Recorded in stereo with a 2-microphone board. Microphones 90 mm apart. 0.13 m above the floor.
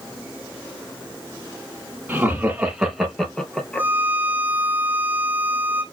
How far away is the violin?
About 3.5 m.